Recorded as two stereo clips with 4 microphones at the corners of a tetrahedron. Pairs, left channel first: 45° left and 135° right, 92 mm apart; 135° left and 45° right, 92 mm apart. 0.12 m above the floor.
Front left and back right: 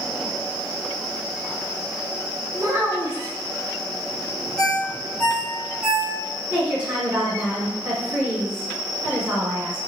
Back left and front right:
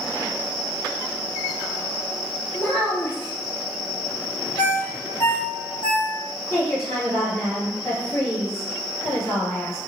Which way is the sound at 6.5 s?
165° left.